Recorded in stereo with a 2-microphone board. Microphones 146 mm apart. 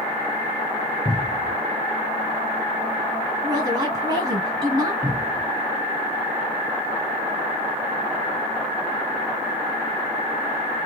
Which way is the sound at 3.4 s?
25° right (ahead or behind).